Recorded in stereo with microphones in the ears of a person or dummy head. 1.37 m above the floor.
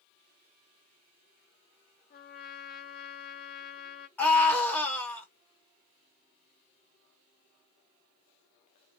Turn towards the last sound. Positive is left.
turn(degrees=10)  # may be behind; listen again after turning